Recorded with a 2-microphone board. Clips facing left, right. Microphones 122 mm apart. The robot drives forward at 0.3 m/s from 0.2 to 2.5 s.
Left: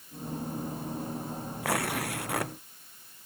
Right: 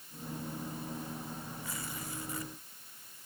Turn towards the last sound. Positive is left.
turn(degrees=75)  # may be behind; listen again after turning